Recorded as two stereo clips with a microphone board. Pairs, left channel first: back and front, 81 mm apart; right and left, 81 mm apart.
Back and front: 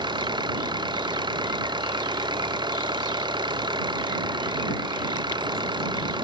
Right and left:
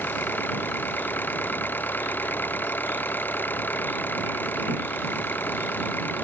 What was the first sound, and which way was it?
An engine running, 20° right.